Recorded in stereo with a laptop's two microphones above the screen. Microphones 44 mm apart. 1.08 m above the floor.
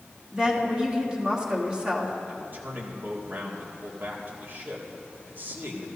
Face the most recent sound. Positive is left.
turn(degrees=-50)  # may be behind; listen again after turning